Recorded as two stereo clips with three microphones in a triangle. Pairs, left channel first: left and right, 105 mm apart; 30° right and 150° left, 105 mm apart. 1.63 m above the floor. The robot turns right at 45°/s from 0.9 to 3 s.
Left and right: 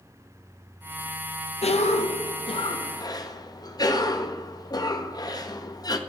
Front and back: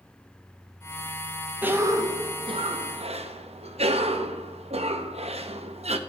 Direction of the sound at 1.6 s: 80° left.